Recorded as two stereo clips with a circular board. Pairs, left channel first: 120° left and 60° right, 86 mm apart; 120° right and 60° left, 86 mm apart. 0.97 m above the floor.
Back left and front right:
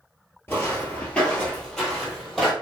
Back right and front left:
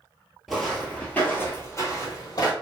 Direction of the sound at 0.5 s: 145° left.